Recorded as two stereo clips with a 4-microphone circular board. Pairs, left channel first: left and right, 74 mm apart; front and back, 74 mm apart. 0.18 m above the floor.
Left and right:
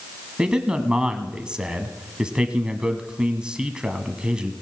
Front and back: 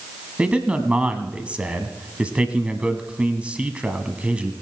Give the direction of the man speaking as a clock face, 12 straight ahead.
5 o'clock.